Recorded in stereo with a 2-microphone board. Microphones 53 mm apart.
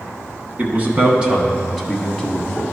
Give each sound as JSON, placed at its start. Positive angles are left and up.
{"t": 0.6, "sound": "a man speaking", "side_deg": -35, "distance_m": 1.2}